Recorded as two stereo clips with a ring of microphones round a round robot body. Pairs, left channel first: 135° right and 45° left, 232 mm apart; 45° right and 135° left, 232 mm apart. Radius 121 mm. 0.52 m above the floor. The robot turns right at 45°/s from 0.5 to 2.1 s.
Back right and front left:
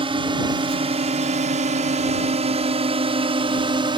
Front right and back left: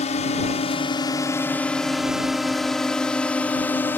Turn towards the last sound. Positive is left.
turn(degrees=20)